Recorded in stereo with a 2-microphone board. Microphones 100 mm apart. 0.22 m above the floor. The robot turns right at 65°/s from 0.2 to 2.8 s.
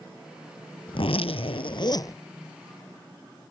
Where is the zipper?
65° left; by 2.2 s 150° left.